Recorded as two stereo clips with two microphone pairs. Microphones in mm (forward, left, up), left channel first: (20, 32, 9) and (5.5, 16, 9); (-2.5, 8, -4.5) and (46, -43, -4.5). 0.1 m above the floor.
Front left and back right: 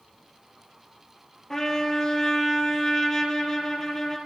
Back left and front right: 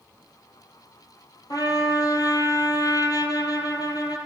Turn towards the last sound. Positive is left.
turn(degrees=115)